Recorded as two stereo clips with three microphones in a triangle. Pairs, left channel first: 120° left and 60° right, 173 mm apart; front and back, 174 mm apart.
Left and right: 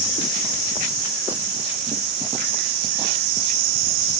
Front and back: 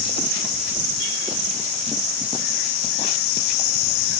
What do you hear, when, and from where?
Only background noise.